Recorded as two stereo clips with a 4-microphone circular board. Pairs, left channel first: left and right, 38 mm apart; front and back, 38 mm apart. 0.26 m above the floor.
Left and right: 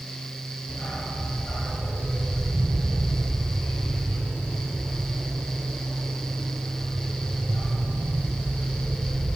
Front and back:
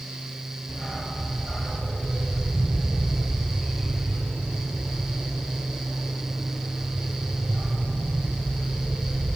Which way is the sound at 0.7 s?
90° left.